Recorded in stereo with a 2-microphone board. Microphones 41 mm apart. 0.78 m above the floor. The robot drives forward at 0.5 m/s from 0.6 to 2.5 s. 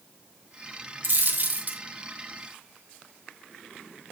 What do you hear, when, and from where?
1.0 s a dropped coin: 45° right (ahead or behind), 1.7 m; by 1.8 s 40° right (ahead or behind), 2.0 m